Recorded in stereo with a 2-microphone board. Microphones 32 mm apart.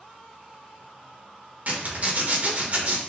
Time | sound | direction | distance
1.7 | a zipper | 45° right (ahead or behind) | 1.1 m